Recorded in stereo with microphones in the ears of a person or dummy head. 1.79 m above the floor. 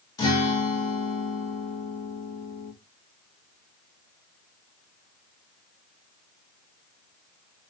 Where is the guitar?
25° left (ahead or behind), 0.8 m.